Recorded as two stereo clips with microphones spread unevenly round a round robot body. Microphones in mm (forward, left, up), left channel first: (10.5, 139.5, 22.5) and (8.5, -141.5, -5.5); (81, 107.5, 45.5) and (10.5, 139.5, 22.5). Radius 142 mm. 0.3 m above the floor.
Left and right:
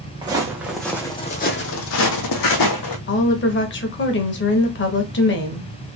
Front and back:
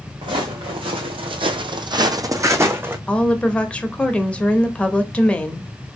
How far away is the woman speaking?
About 1.0 m.